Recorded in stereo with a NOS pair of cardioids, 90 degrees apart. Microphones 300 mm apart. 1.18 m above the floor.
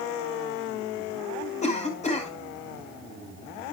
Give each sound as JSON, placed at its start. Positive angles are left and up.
{"t": 1.6, "sound": "a cough", "azimuth_deg": 25, "distance_m": 5.0}